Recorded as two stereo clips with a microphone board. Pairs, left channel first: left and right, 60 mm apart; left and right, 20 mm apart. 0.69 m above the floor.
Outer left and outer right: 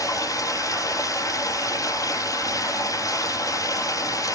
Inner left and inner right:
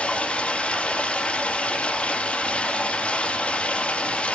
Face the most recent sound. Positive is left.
turn(degrees=75)  # may be behind; listen again after turning